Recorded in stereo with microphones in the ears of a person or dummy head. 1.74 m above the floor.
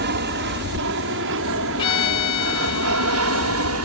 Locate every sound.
0.0 s an aircraft: 55° right (ahead or behind); by 3.8 s 75° right (ahead or behind)
1.8 s a violin: 25° left (ahead or behind)